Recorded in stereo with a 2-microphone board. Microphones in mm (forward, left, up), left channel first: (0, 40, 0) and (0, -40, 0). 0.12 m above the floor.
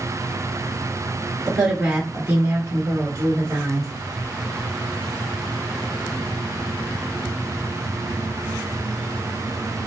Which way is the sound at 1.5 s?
5° right (ahead or behind).